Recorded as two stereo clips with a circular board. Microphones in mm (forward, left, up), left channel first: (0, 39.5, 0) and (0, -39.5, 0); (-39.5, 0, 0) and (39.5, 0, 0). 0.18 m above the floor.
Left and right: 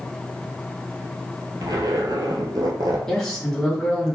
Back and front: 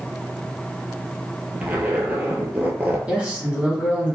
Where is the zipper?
70° right, 0.8 m.